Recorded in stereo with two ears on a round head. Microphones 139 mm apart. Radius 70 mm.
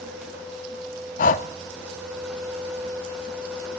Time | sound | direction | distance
1.2 | breathing | 55° left (ahead or behind) | 0.9 m